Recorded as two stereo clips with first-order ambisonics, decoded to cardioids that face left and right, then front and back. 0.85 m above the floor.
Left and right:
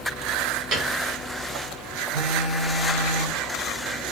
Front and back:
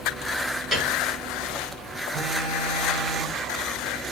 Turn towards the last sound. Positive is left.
turn(degrees=155)